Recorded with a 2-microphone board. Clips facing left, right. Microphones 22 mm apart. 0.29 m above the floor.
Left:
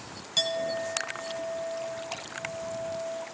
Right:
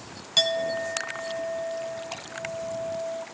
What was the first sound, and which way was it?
A clink, 20° right (ahead or behind).